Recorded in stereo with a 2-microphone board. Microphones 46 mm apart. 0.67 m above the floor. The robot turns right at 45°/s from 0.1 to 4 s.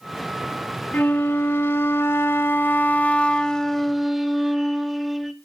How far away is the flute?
About 0.7 m.